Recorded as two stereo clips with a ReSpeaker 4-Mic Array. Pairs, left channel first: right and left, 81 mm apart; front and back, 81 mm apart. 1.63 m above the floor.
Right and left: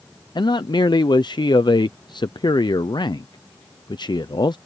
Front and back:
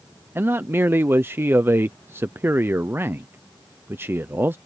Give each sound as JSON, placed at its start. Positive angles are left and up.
{"t": 0.3, "sound": "a man speaking", "azimuth_deg": -115}